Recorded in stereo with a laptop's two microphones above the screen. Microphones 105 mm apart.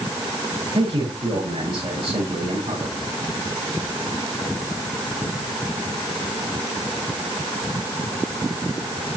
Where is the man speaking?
50° right (ahead or behind), 4.5 m.